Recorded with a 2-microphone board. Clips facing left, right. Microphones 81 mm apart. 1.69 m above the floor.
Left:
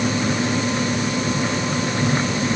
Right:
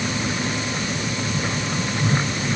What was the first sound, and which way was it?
Only background noise.